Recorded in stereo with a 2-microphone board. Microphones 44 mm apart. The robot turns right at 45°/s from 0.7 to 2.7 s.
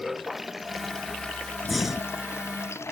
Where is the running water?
5° right; by 2.9 s 85° left.